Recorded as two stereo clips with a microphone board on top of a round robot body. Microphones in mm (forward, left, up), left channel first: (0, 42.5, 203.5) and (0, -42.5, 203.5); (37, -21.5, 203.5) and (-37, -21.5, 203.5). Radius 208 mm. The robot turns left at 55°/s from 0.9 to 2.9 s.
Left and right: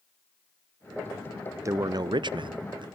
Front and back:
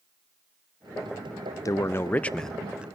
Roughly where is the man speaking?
Ahead right.